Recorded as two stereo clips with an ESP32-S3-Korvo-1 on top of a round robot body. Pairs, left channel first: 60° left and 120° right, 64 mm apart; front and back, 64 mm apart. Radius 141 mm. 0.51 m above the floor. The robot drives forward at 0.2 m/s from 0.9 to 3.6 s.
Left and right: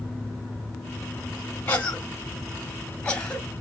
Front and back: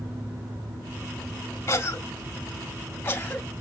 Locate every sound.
1.7 s a cough: 5° left, 1.2 m; by 3.5 s 15° left, 1.0 m